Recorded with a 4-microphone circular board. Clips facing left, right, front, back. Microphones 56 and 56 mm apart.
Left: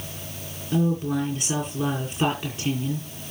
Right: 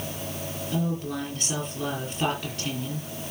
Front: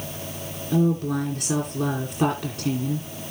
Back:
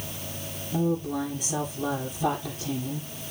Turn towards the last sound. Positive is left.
turn(degrees=15)